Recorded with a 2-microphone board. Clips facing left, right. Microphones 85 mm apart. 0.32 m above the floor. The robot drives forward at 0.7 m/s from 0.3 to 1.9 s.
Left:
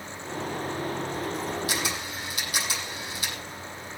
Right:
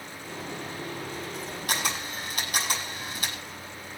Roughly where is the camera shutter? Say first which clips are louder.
Even; right.